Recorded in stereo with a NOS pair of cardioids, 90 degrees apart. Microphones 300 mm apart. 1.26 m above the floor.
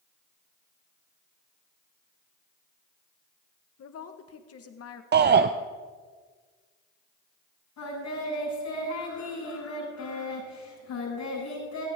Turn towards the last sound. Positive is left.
turn(degrees=65)